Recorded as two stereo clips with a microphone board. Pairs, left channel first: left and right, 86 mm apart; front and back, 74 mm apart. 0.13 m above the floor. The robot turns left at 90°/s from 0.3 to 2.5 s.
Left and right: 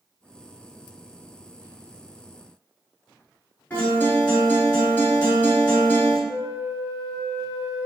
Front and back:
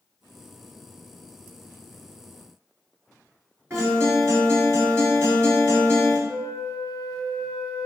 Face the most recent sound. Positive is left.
turn(degrees=-120)